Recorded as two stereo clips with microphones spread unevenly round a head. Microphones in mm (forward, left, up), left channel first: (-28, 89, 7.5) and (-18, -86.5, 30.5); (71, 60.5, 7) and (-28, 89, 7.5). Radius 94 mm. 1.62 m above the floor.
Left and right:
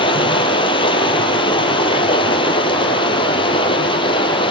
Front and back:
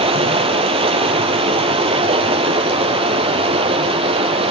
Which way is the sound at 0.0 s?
155° left.